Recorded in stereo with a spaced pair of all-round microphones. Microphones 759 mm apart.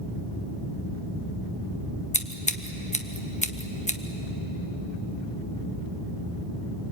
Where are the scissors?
10° left (ahead or behind), 1.1 m.